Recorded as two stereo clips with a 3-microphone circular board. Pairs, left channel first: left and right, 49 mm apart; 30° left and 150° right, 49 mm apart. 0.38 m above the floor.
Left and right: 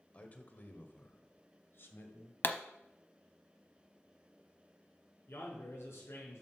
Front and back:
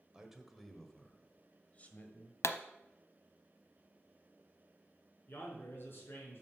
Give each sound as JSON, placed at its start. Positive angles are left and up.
{"t": 0.1, "sound": "a man speaking", "azimuth_deg": 135, "distance_m": 1.4}
{"t": 2.4, "sound": "a pop", "azimuth_deg": 45, "distance_m": 0.6}
{"t": 5.3, "sound": "a man speaking", "azimuth_deg": 70, "distance_m": 4.5}